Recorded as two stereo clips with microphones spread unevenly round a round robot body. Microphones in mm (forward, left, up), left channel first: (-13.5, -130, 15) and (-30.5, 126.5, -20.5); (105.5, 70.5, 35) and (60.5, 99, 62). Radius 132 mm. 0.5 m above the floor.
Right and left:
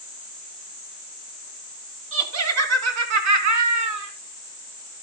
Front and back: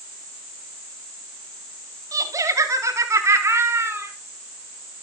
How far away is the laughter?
About 4 m.